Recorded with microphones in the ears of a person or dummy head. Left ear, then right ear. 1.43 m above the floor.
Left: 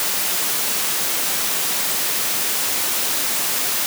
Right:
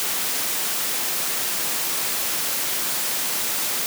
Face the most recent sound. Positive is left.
No sound to turn to.